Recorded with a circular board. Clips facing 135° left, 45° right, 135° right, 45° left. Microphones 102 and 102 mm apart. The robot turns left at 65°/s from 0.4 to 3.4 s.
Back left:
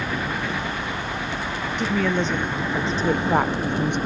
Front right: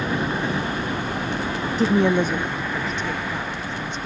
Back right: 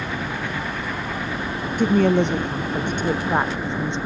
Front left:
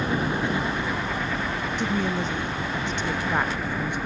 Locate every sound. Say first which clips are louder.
0.0 s a helicopter: front right 3 dB, front left 3 dB; straight ahead; by 4.1 s 165° left
1.8 s a woman speaking: front right 4 dB, back right 11 dB; 95° right; by 4.0 s 160° left